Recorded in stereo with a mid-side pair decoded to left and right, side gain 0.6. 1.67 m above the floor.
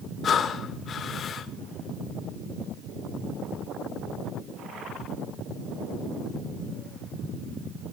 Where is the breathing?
45° left, 2.5 m.